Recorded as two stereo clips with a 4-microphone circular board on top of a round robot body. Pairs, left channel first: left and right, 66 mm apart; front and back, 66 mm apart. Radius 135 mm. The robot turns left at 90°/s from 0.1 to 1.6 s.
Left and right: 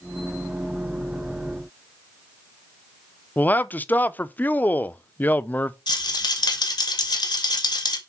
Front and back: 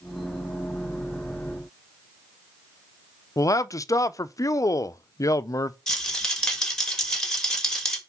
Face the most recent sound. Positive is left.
turn(degrees=80)